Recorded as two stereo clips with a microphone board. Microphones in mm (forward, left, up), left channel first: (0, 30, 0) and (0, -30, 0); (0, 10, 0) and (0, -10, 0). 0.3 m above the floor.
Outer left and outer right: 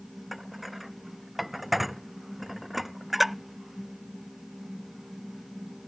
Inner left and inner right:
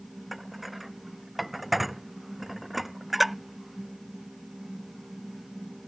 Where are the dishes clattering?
Centre (ahead or behind).